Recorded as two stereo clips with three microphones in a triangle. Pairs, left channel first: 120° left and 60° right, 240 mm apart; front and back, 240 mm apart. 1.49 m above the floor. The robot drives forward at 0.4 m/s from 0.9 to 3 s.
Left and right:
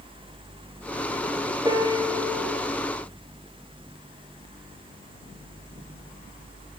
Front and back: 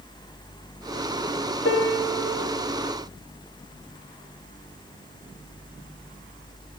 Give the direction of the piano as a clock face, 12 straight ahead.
12 o'clock.